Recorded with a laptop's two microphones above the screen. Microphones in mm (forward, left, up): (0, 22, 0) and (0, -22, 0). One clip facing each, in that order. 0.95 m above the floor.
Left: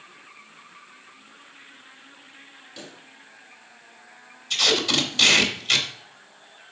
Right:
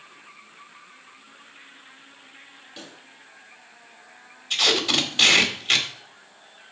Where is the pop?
25° right (ahead or behind), 5 m.